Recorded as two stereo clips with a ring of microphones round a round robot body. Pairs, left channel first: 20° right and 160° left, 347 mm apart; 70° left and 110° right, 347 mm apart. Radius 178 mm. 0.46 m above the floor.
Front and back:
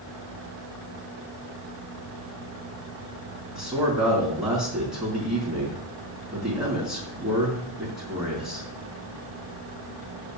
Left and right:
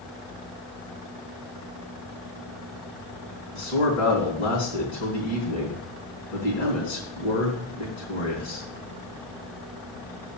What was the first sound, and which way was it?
A man speaking, 80° left.